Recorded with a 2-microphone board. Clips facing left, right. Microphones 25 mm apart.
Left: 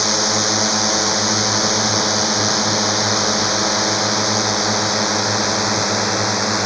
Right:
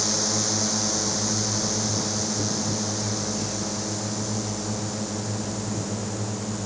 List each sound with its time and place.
0.0 s a drone: 40° left (ahead or behind); by 6.7 s 70° left (ahead or behind)